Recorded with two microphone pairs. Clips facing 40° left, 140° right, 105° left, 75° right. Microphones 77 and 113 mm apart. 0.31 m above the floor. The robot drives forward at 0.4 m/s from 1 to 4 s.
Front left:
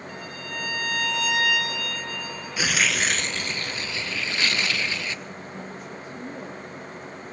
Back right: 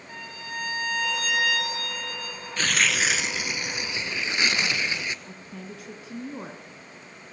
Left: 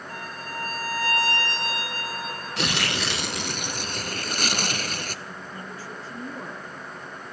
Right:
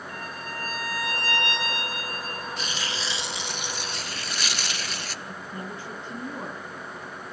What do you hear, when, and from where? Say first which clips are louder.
0.1 s a violin: back right 2 dB, left 2 dB; 160° left, 10 m
2.6 s tearing paper: even, left 5 dB; 115° left, 0.7 m; by 5.2 s 145° left, 1.1 m
5.2 s a woman speaking: front left 4 dB, right 1 dB; 145° right, 4.5 m